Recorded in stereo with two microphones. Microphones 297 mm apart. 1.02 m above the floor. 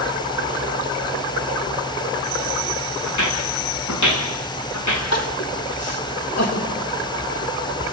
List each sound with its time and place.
3.0 s footsteps: 80° left, 5 m
5.1 s crying: 60° left (ahead or behind), 2.5 m